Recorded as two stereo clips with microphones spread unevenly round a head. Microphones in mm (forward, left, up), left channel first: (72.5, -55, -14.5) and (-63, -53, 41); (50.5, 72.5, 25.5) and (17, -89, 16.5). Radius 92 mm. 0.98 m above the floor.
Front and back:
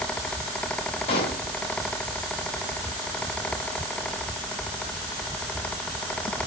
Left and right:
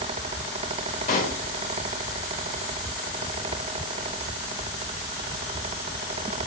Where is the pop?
70° left, 0.9 m.